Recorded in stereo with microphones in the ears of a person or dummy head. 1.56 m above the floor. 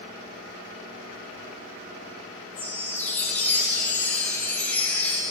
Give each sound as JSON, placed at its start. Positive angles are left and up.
{"t": 2.5, "sound": "a chime", "side_deg": 10, "distance_m": 0.6}